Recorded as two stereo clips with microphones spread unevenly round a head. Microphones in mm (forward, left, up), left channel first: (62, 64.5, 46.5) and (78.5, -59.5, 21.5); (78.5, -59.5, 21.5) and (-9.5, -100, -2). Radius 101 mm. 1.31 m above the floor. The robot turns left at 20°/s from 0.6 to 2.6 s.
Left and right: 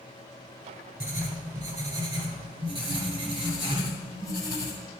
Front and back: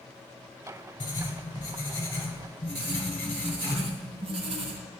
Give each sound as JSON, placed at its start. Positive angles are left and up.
{"t": 1.0, "sound": "writing", "azimuth_deg": -10, "distance_m": 3.0}
{"t": 2.8, "sound": "writing", "azimuth_deg": -160, "distance_m": 1.3}